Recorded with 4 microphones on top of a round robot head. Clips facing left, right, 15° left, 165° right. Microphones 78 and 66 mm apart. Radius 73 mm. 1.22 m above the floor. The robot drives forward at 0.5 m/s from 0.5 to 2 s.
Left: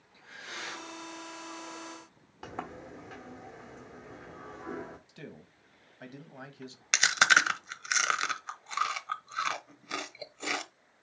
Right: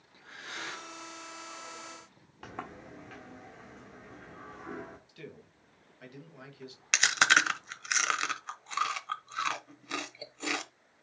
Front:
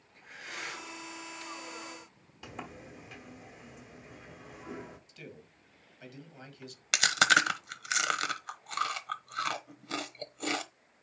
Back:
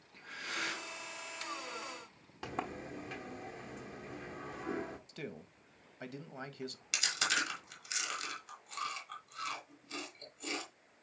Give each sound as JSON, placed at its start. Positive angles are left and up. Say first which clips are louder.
{"t": 0.1, "sound": "breathing", "louder": "even, back 2 dB", "azimuth_deg": -150, "distance_m": 2.0}
{"t": 2.4, "sound": "a sliding door", "louder": "left 2 dB, back 4 dB", "azimuth_deg": 165, "distance_m": 1.0}
{"t": 5.1, "sound": "a man speaking", "louder": "left 1 dB, back 4 dB", "azimuth_deg": 155, "distance_m": 1.4}
{"t": 6.9, "sound": "chewing", "louder": "left 1 dB, front 11 dB", "azimuth_deg": 0, "distance_m": 1.1}